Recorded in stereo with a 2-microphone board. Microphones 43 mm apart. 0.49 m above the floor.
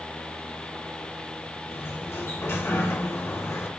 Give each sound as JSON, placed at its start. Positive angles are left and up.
{"t": 1.7, "sound": "a sliding door", "side_deg": 70, "distance_m": 0.7}